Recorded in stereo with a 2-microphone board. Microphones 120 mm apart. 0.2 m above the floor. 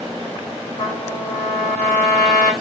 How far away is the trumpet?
About 3 m.